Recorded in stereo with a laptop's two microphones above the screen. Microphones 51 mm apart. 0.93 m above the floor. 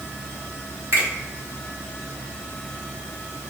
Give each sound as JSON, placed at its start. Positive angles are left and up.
{"t": 0.9, "sound": "a finger snap", "side_deg": -65, "distance_m": 1.7}